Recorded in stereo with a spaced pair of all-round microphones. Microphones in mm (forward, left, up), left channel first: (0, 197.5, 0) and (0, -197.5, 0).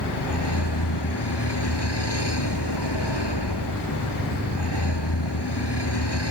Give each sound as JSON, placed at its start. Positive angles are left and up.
{"t": 0.0, "sound": "a vehicle", "side_deg": 90}